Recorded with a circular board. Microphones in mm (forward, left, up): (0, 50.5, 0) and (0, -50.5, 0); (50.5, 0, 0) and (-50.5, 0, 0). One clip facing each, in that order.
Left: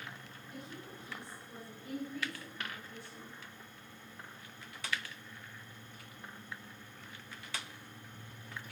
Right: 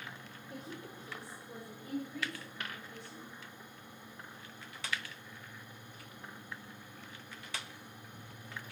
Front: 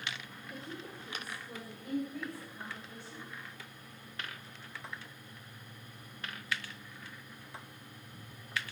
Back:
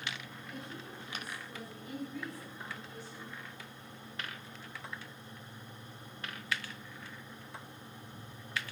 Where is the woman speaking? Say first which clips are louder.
Right 2 dB, front 2 dB; 50° right, 2.0 m; by 3.4 s 20° right, 4 m.